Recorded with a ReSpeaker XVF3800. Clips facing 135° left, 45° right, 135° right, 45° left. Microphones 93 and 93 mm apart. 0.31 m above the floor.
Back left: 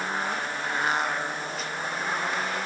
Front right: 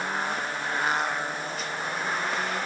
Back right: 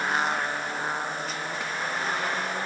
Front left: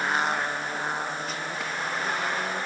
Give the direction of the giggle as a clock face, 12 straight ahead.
No giggle in this recording.